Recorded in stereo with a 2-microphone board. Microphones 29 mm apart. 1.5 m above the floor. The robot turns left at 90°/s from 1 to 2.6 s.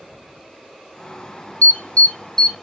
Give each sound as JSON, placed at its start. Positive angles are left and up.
{"t": 1.6, "sound": "an alarm", "side_deg": 70, "distance_m": 2.0}